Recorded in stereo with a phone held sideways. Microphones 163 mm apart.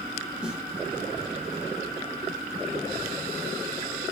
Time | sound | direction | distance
0.4 | a snare drum | 5° right (ahead or behind) | 1.9 m